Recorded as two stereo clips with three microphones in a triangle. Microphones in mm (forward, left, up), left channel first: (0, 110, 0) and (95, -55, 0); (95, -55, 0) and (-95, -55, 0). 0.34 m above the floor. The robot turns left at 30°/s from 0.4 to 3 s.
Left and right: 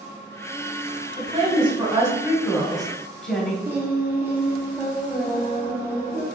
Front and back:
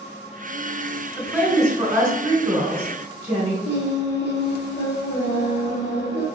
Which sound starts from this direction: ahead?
Singing, at 3.6 s.